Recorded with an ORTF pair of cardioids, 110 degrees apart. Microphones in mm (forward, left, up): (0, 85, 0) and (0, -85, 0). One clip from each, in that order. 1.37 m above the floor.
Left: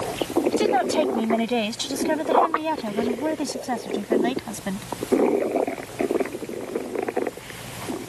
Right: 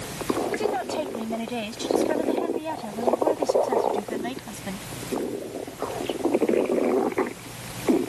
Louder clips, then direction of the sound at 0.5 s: Left 5 dB; 50° left.